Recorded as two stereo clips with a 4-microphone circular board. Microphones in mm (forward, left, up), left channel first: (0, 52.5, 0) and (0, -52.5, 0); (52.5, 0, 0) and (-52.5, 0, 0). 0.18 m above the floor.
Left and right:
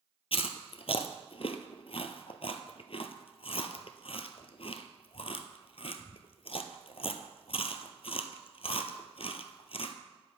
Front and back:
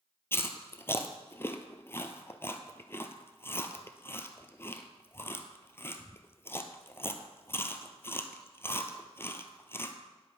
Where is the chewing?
70° left, 0.9 m.